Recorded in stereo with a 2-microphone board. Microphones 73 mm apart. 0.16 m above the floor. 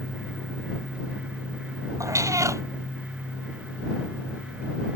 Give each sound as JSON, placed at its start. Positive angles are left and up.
{"t": 2.0, "sound": "a cat meowing", "side_deg": -45}